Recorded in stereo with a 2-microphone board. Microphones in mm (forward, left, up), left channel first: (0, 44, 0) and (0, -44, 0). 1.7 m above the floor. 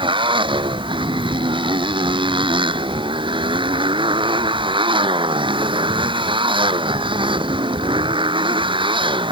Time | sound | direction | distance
0.0 | a motorcycle | 90° right | ?